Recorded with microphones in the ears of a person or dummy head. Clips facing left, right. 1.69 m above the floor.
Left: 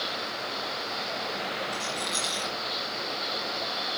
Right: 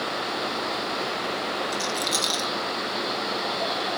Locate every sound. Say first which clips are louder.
1.7 s a rattle: right 6 dB; 40° right (ahead or behind), 1.8 m